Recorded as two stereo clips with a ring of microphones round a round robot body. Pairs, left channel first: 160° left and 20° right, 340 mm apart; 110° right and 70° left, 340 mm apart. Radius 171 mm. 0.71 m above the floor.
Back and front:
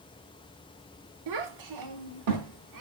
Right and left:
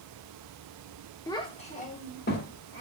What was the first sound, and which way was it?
A child speaking, 30° right.